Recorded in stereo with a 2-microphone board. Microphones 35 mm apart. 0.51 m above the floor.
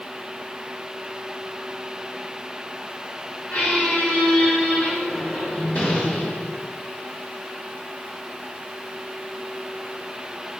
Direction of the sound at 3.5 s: 50° left (ahead or behind).